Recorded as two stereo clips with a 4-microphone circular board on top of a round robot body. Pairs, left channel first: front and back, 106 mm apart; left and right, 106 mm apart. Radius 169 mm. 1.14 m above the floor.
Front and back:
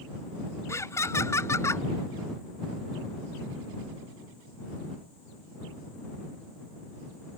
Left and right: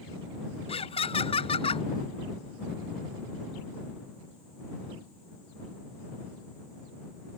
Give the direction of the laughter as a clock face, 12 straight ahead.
10 o'clock.